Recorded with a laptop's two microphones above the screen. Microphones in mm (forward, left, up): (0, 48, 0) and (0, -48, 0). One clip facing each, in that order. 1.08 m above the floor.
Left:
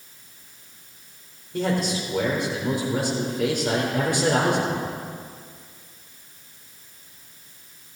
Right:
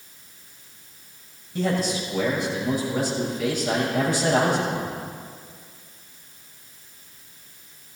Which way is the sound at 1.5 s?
65° left (ahead or behind).